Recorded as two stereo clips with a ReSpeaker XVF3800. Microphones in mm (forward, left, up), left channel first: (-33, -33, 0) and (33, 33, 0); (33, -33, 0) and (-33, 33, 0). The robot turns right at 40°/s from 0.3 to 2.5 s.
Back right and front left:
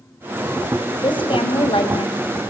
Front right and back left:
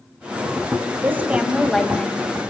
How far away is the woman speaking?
About 4 m.